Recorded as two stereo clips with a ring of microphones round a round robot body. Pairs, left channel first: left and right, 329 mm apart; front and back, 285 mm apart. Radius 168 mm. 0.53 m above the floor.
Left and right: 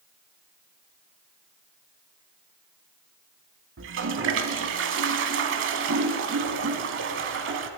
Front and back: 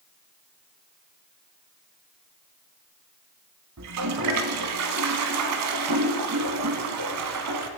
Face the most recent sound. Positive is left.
turn(degrees=-140)